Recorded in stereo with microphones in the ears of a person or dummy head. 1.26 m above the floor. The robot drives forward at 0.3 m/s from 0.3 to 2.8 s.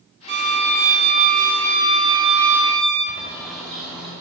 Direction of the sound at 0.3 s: 50° right (ahead or behind).